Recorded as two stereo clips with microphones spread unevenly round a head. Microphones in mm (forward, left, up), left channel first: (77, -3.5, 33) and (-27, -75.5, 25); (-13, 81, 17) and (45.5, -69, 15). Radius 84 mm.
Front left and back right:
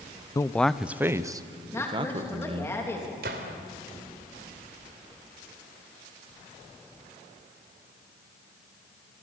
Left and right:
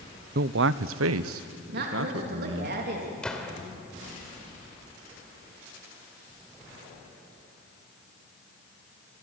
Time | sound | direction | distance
0.3 | a man speaking | 30° right | 0.8 m
1.7 | a woman speaking | 35° right | 3.5 m
3.2 | a gunshot | 165° right | 2.5 m